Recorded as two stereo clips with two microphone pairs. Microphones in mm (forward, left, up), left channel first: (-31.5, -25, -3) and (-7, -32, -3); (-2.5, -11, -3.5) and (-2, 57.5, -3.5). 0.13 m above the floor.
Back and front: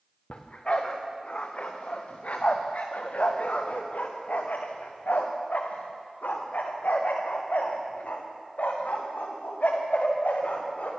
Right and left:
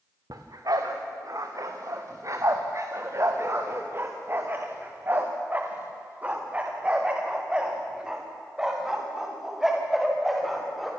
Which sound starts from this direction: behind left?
A dog barking, at 0.3 s.